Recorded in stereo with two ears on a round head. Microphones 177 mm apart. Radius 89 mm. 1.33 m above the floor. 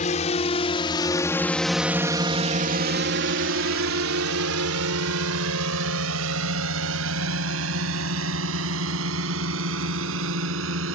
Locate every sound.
0.0 s a drone: 40° left (ahead or behind); by 11.0 s 75° right (ahead or behind)